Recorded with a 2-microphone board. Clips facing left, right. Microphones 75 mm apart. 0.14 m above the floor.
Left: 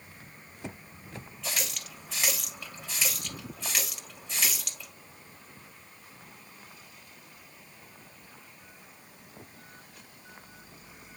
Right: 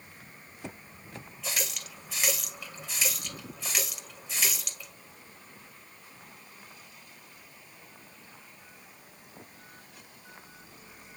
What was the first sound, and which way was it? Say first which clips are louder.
A running tap: even; centre (ahead or behind).